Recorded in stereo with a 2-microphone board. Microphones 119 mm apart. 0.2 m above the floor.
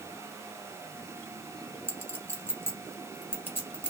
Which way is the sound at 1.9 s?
20° left (ahead or behind).